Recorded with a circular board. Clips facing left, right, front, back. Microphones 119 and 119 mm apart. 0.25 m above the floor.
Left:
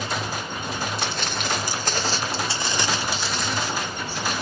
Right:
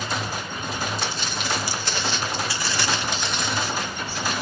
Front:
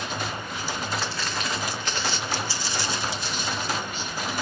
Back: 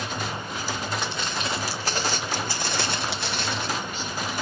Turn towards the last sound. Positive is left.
turn(degrees=-175)